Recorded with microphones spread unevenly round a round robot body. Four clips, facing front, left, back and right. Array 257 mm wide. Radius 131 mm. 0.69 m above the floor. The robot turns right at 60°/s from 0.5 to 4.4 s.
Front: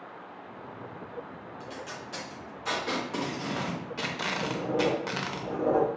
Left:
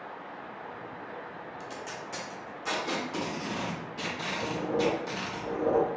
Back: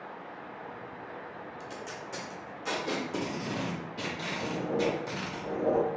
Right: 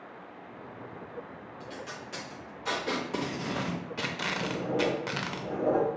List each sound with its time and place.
1.6 s tape being pulled: 150° left, 0.5 m; by 5.4 s 45° right, 0.5 m
4.4 s writing: 135° right, 1.6 m